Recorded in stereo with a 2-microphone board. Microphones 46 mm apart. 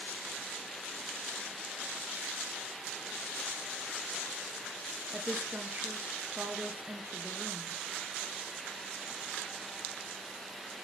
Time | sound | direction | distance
5.1 | a woman speaking | 35° right (ahead or behind) | 1.3 m